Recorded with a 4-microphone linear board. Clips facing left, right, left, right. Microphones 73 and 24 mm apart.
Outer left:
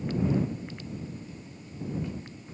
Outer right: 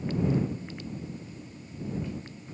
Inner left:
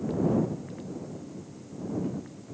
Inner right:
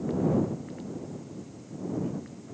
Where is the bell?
No bell in this recording.